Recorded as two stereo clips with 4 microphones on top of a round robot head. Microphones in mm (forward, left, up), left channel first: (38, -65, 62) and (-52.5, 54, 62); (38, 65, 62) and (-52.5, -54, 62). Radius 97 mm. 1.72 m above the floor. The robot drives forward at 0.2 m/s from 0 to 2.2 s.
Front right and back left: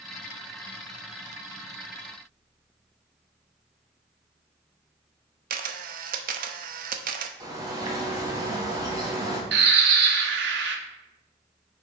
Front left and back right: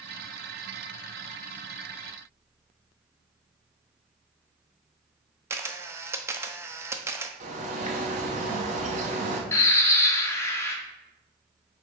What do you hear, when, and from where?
5.5 s a camera shutter: 160° left, 0.6 m
7.4 s a bird: 165° right, 1.1 m
9.5 s a bird: 125° left, 0.8 m